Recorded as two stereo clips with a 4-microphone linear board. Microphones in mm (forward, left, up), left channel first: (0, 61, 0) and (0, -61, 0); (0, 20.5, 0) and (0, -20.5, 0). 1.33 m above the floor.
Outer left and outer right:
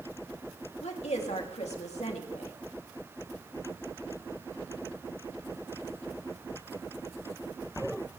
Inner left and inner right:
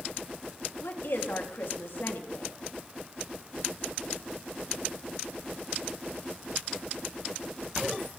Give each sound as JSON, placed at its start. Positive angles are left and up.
{"t": 0.8, "sound": "a woman speaking", "side_deg": 60, "distance_m": 3.0}